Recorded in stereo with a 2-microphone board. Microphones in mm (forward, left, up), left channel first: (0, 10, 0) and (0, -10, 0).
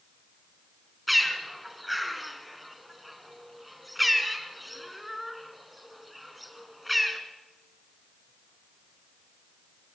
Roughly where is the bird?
Centre.